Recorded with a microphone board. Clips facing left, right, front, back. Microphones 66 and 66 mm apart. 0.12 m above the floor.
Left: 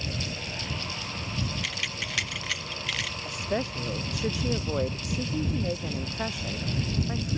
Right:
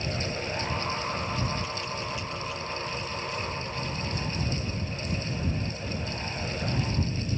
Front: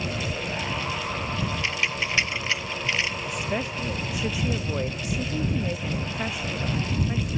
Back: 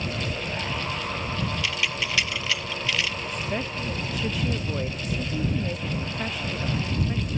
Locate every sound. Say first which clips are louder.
1.6 s keys jangling: right 1 dB, front 1 dB; 65° left
3.2 s a woman speaking: left 3 dB, front 1 dB; 80° left